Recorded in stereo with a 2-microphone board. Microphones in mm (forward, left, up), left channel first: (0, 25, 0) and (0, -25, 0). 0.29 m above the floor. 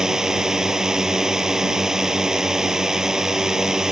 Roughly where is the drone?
Centre.